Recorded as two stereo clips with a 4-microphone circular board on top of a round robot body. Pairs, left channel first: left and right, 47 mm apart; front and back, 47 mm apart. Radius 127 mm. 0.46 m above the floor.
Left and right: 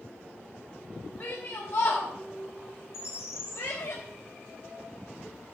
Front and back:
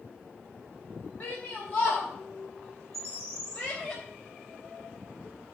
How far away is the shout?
About 2.5 m.